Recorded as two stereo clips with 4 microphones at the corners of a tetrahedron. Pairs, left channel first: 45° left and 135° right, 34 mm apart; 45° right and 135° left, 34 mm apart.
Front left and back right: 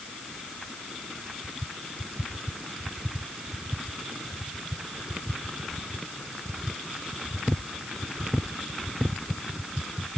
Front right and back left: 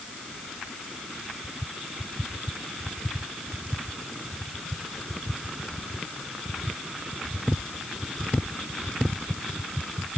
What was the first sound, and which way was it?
Only background noise.